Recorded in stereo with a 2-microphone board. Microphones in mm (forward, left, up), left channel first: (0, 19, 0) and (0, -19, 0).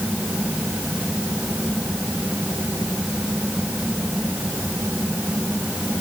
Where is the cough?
I don't hear a cough.